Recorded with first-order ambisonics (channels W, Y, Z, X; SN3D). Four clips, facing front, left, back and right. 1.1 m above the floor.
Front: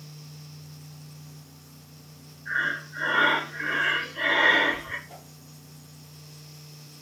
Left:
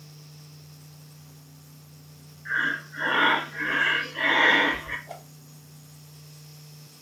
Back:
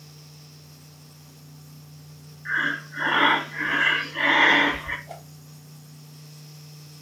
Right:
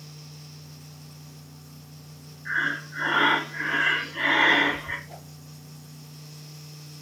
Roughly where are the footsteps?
No footsteps in this recording.